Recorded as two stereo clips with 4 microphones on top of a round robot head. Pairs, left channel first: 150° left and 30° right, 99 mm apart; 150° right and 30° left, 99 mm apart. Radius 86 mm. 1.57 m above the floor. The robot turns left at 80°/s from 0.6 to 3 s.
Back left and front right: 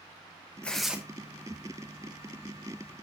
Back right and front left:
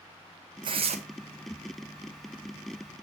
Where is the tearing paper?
70° left, 0.9 m; by 1.0 s 45° left, 0.9 m.